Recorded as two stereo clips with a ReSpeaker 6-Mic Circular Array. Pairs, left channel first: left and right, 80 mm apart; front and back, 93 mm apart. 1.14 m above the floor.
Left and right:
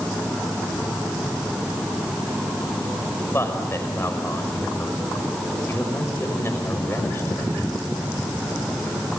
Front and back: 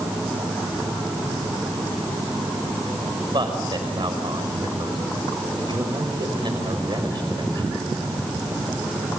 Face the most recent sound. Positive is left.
turn(degrees=150)